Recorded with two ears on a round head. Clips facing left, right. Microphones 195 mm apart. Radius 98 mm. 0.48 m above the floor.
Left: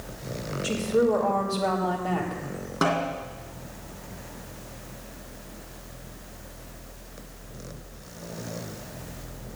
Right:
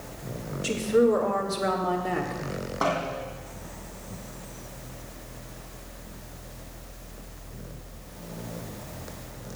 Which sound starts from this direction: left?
A snare drum, at 2.8 s.